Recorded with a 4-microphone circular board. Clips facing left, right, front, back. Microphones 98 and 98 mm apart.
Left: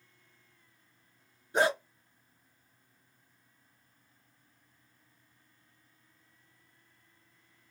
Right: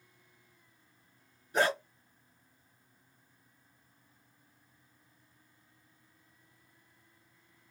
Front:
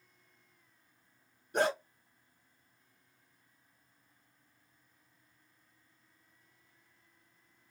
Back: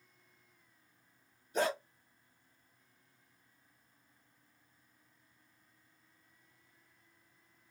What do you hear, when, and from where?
1.5 s a dog barking: 20° left, 2.5 m